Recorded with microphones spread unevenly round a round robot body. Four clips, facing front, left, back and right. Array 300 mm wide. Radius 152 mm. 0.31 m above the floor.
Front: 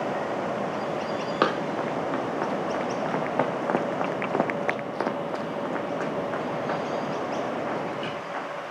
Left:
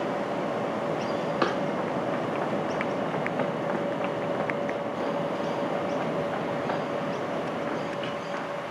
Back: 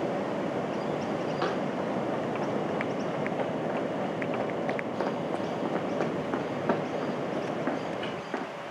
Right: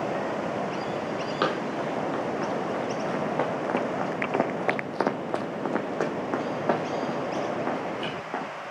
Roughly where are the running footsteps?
Ahead.